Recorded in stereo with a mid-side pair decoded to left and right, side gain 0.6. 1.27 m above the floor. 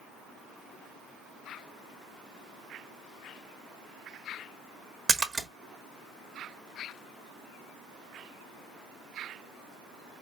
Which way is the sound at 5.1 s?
25° right.